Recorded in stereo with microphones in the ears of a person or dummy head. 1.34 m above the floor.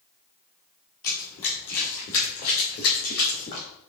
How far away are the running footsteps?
About 1.9 m.